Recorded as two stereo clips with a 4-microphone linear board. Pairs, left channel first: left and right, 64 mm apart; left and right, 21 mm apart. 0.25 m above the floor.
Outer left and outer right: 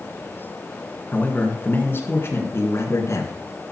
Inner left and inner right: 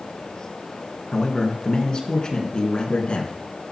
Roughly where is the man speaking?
Left.